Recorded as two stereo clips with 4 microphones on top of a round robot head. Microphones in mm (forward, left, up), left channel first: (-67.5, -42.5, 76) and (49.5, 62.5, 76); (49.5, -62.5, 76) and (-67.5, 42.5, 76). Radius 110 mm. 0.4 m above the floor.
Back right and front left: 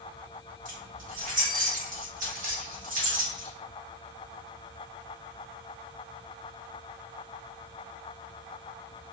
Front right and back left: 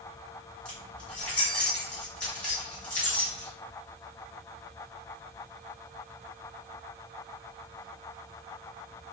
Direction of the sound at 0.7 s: 40° left.